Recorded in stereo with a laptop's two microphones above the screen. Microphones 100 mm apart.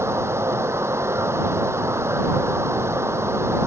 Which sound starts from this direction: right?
Running water, at 0.0 s.